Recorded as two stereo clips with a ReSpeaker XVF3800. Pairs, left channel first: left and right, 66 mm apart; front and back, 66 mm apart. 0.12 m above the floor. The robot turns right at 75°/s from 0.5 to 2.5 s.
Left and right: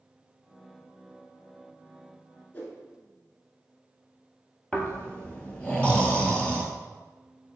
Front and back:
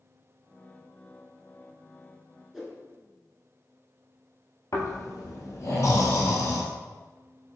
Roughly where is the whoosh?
Left.